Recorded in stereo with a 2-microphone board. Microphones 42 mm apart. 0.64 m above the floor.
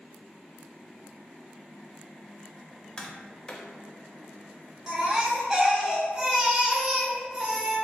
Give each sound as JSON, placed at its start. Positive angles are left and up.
{"t": 3.0, "sound": "tapping", "side_deg": 25, "distance_m": 0.5}
{"t": 4.9, "sound": "a baby crying", "side_deg": -20, "distance_m": 1.2}